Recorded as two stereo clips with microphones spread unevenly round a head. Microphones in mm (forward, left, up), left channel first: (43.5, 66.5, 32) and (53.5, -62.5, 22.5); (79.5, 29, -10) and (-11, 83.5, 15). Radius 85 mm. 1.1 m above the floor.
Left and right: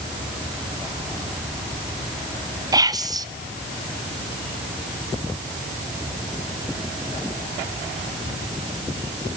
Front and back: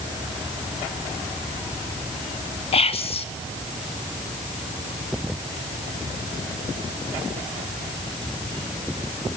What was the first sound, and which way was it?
Whispering, 25° right.